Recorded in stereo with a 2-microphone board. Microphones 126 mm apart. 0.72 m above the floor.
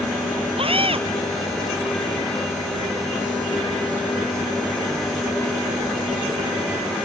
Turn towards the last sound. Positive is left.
turn(degrees=-50)  # may be behind; listen again after turning